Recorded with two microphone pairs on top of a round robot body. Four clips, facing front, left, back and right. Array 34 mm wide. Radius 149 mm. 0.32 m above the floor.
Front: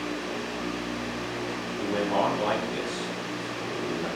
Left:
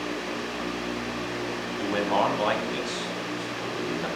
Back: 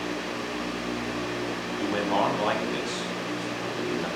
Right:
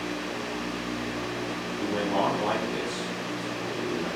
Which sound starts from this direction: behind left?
A man speaking, at 1.8 s.